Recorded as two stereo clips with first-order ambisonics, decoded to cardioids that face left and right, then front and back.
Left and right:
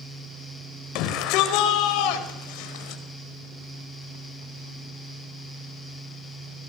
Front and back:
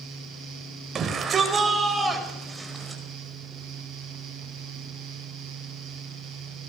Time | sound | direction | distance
0.9 | a shout | 115° left | 4.5 m